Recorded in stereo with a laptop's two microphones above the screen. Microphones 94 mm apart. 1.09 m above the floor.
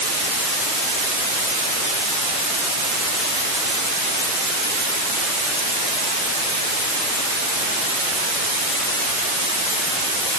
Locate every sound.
Only background noise.